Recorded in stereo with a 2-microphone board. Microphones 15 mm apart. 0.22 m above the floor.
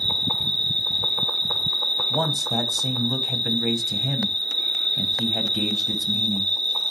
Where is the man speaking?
10° right (ahead or behind), 1.3 m.